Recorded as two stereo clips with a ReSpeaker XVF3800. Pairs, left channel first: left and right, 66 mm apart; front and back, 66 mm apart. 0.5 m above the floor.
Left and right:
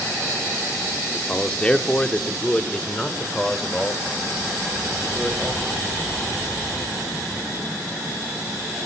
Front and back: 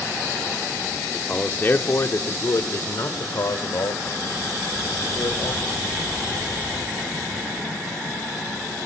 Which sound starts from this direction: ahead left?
A man speaking, at 1.1 s.